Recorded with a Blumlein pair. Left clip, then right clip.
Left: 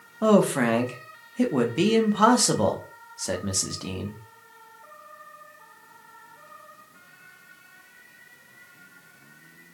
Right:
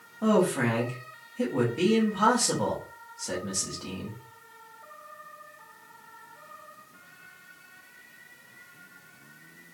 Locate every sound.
0.2 s a man speaking: 65° left, 0.7 m